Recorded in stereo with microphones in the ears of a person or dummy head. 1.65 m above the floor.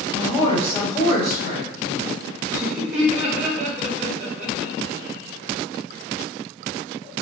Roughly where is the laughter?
Centre.